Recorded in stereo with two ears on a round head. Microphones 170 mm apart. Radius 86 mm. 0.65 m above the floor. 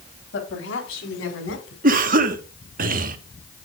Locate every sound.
0.3 s a woman speaking: 70° left (ahead or behind), 3.5 m; by 1.7 s 80° left, 5 m
1.8 s a cough: 45° right (ahead or behind), 1.1 m